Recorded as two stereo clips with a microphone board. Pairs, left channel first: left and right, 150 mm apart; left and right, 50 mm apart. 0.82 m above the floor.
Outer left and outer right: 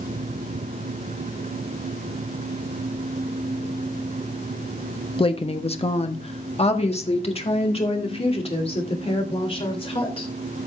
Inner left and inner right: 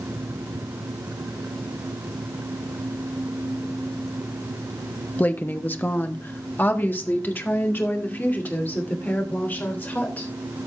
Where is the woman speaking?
40° left (ahead or behind), 0.8 m.